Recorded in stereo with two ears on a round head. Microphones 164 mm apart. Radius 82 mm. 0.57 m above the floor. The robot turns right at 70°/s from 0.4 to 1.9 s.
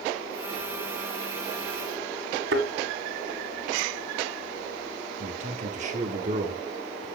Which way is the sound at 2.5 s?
70° right (ahead or behind).